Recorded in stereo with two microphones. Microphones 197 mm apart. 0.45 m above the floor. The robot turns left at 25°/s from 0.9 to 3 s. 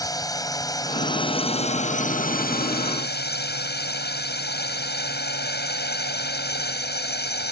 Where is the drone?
160° left; by 7.5 s 105° left.